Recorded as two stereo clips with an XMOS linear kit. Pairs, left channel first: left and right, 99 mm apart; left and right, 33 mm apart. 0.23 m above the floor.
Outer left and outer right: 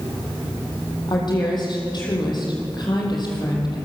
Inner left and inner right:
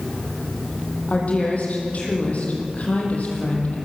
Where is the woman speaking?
45° left (ahead or behind), 8 m.